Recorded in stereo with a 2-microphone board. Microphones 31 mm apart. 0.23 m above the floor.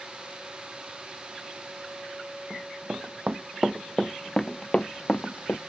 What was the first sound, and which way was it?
Running footsteps, 45° right (ahead or behind).